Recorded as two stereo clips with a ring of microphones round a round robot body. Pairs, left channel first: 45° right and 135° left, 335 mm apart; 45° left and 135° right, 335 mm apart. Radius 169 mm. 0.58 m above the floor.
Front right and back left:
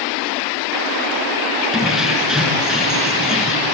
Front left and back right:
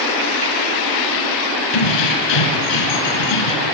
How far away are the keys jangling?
About 4.5 m.